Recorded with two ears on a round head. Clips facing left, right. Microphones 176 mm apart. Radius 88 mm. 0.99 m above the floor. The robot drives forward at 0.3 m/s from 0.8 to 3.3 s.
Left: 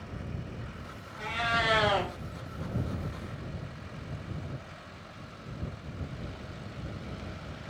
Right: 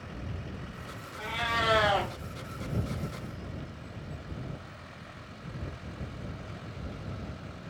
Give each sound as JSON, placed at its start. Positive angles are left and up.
{"t": 1.2, "sound": "a cat meowing", "side_deg": -5, "distance_m": 1.8}